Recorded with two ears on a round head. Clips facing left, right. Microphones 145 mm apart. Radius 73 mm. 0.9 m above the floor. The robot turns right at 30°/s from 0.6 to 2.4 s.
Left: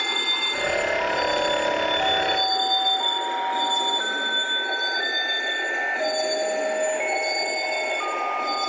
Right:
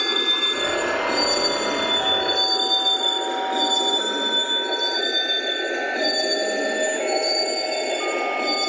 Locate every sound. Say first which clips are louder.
0.0 s a vehicle: right 4 dB; 60° right (ahead or behind); by 8.7 s 35° right (ahead or behind)